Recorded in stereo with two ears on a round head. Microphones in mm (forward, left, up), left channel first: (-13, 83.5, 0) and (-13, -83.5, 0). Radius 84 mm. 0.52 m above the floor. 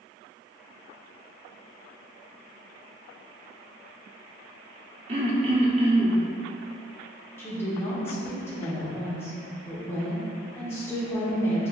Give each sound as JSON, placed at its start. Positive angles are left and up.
{"t": 5.1, "sound": "throat clearing", "side_deg": -35, "distance_m": 0.7}
{"t": 7.4, "sound": "a woman speaking", "side_deg": 15, "distance_m": 0.9}